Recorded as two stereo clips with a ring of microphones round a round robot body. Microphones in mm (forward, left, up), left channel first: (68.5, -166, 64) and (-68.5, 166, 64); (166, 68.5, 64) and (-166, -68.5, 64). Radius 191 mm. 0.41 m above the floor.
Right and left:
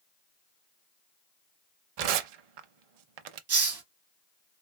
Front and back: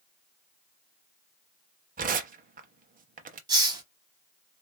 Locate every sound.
2.0 s tearing paper: 135° left, 0.6 m
3.5 s a hiss: 130° left, 1.6 m